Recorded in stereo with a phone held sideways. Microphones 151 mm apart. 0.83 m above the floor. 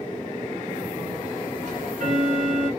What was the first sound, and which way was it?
Ticking, 60° right (ahead or behind).